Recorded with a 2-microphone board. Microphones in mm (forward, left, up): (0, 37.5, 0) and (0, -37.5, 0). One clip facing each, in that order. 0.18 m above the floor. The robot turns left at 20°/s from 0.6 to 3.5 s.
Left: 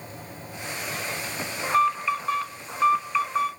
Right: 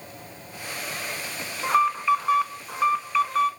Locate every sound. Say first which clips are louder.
1.6 s an alarm: right 1 dB; 155° right, 1.1 m; by 3.5 s 170° left, 1.1 m